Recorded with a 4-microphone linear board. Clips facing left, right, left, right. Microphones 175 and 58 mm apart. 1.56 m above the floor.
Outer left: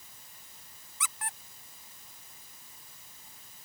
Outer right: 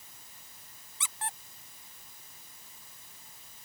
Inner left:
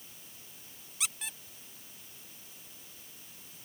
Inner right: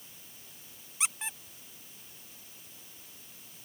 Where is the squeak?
25° right (ahead or behind).